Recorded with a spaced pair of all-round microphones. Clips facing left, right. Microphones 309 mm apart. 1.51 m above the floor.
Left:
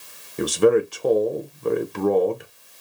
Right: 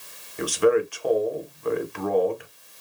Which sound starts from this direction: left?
A man speaking, at 0.4 s.